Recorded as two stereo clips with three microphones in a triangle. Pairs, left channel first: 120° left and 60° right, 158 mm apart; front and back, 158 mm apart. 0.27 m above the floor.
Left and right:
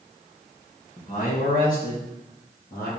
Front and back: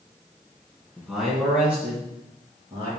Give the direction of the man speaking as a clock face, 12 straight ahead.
9 o'clock.